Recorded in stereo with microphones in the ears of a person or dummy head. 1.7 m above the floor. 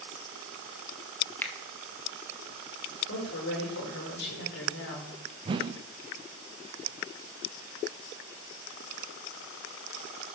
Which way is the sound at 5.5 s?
35° right (ahead or behind).